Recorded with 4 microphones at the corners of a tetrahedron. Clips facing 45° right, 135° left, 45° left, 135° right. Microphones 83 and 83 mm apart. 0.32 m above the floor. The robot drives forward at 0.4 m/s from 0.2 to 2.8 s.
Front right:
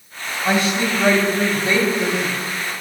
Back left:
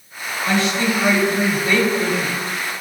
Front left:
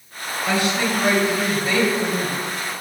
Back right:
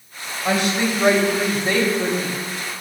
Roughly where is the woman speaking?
Right.